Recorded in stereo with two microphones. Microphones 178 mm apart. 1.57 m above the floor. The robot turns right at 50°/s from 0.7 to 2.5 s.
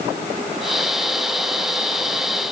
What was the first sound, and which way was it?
Only background noise.